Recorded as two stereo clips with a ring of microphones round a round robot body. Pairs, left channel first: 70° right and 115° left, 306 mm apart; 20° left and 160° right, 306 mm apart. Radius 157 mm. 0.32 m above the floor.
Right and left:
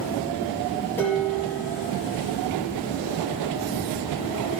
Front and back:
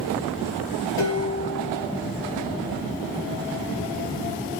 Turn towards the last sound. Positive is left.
turn(degrees=15)